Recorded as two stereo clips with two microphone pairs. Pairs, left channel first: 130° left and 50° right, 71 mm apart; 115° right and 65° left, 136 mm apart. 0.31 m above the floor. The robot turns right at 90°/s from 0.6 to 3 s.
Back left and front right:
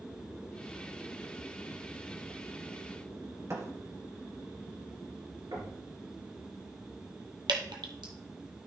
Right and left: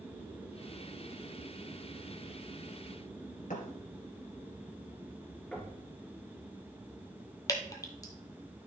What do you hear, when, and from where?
3.5 s a thud: 95° right, 2.0 m
5.5 s knocking: 35° right, 3.5 m
7.5 s dripping: 50° right, 1.3 m